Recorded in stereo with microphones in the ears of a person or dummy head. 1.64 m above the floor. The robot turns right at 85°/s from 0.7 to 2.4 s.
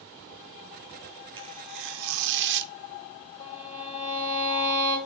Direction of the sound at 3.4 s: 40° left (ahead or behind).